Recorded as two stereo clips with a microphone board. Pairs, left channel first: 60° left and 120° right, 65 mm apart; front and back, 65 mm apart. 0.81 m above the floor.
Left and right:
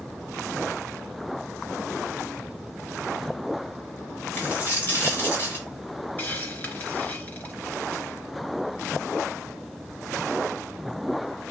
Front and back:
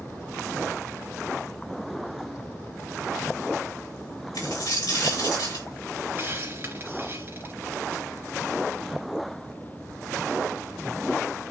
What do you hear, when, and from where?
4.3 s a dropped coin: straight ahead, 5 m
6.2 s a hiss: 125° left, 2.5 m